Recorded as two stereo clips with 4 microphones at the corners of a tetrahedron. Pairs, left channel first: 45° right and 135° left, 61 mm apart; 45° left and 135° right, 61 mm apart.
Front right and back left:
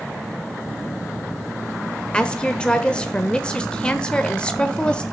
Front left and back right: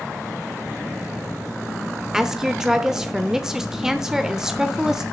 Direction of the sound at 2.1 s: 70° right.